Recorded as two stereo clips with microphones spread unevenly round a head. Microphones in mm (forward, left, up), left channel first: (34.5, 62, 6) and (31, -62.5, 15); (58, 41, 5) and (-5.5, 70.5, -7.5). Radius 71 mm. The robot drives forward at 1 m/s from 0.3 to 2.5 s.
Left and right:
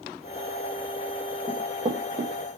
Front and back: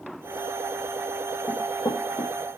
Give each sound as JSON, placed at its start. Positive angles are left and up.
{"t": 1.5, "sound": "running footsteps", "azimuth_deg": -50, "distance_m": 1.6}